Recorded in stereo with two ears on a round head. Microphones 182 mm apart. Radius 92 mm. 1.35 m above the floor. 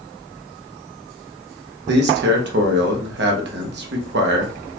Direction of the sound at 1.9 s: 65° right (ahead or behind).